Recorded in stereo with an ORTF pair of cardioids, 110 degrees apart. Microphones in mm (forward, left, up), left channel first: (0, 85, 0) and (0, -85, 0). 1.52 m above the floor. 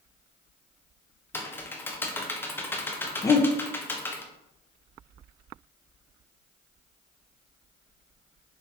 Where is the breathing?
20° left, 1.0 m.